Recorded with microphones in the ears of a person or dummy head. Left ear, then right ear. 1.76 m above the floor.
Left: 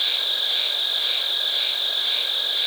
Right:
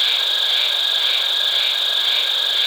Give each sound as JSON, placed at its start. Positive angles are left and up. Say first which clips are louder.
{"t": 0.0, "sound": "an insect", "louder": "right 5 dB", "side_deg": -40}